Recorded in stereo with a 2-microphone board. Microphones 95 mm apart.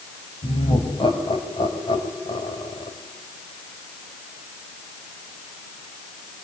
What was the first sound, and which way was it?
Laughter, 70° left (ahead or behind).